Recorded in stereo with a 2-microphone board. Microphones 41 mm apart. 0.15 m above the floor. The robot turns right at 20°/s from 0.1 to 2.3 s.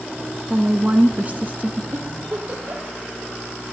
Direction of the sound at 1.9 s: 60° right (ahead or behind).